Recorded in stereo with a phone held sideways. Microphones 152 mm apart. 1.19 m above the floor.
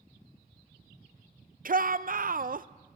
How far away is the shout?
About 0.5 m.